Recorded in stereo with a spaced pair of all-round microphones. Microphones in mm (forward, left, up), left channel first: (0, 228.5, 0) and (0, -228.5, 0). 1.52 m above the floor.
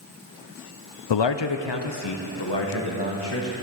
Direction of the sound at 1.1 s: 80° left.